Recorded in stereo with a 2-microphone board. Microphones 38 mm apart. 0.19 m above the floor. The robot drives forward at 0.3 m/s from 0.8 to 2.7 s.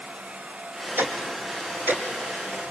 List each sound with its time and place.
1.0 s ticking: 70° right (ahead or behind), 2.5 m; by 2.0 s 60° right (ahead or behind), 2.5 m